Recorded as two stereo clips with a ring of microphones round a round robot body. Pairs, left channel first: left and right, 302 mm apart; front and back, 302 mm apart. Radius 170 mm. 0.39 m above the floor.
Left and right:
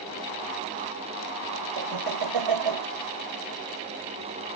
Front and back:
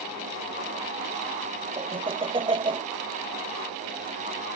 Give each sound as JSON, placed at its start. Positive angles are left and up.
{"t": 1.8, "sound": "laughter", "azimuth_deg": -105}